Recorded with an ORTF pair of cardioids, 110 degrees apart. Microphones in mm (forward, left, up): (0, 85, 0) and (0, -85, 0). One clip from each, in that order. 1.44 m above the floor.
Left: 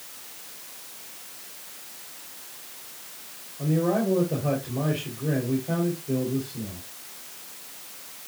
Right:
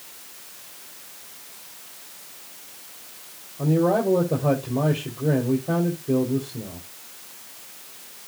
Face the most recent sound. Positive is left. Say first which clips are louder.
# right 4 dB
turn(degrees=-35)